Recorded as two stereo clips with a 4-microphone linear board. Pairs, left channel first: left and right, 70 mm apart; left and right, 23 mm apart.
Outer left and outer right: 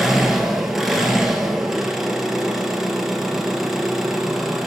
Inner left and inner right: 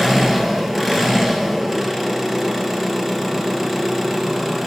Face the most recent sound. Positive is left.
turn(degrees=-5)  # may be behind; listen again after turning